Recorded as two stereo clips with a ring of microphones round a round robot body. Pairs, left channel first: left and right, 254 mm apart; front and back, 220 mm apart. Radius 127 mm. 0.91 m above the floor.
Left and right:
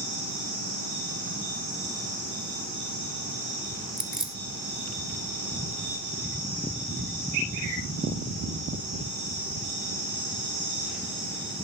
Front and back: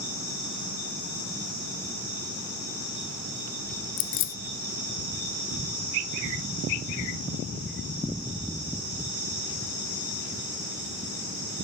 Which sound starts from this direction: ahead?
Keys jangling, at 4.0 s.